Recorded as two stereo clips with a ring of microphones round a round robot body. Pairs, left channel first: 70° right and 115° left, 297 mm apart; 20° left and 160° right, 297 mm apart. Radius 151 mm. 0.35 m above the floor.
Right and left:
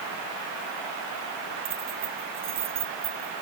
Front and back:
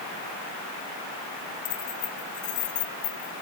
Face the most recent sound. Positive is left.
turn(degrees=50)